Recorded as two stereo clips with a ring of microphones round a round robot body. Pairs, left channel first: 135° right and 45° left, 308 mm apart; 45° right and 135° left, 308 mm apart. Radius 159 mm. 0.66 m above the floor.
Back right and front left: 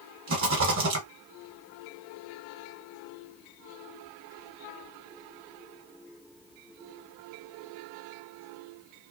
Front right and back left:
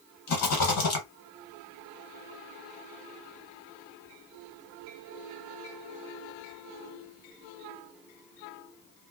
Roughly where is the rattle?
Ahead.